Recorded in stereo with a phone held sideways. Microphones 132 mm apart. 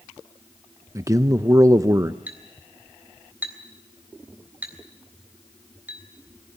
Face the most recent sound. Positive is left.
turn(degrees=-15)  # may be behind; listen again after turning